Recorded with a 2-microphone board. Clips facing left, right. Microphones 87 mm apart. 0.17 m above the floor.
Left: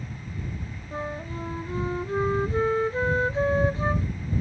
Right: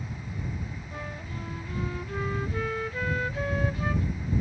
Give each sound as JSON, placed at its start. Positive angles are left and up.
{"t": 0.9, "sound": "a flute", "side_deg": 30}